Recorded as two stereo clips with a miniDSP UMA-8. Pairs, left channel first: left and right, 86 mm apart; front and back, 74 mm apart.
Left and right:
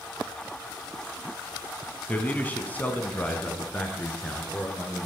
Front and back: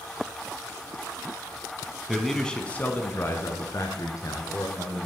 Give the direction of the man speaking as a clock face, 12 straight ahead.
9 o'clock.